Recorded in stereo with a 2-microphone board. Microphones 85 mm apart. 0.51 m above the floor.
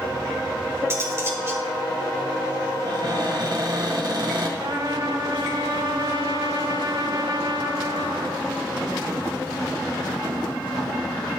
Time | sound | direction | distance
0.9 | cutlery clinking | 30° right (ahead or behind) | 2 m
2.9 | a cupboard door | 55° right (ahead or behind) | 2 m
4.6 | a trumpet | 55° right (ahead or behind) | 1.0 m